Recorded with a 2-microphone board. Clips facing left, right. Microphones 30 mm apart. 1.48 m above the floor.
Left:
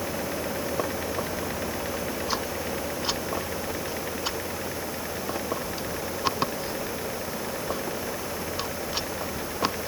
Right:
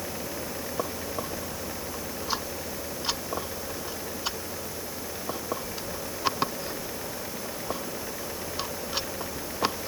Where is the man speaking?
I don't hear a man speaking.